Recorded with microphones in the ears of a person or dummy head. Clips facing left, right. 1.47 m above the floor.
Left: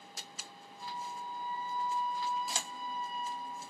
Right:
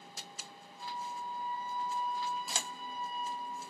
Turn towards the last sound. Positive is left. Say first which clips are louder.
# right 1 dB
turn(degrees=65)  # may be behind; listen again after turning